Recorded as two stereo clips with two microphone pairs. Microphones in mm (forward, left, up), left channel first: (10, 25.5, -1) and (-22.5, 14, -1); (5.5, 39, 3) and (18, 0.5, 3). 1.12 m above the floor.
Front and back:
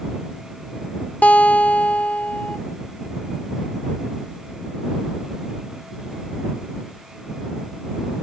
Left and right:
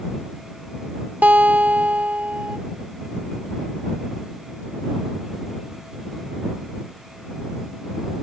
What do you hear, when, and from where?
1.2 s a guitar: 25° right